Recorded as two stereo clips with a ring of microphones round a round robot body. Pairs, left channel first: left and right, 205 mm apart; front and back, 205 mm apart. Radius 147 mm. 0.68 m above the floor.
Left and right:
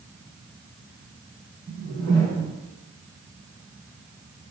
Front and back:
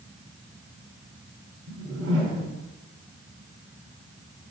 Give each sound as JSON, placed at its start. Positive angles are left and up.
{"t": 1.7, "sound": "a whoosh", "azimuth_deg": 165, "distance_m": 2.5}